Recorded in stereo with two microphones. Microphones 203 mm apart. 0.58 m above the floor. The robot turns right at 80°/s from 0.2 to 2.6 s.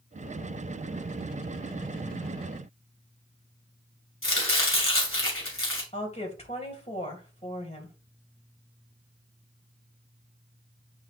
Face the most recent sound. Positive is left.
turn(degrees=30)  # may be behind; listen again after turning